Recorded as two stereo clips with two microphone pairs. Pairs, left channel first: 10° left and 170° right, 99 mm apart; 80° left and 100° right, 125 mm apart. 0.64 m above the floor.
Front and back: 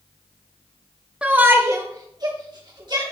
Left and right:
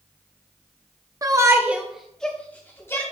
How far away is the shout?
About 0.7 m.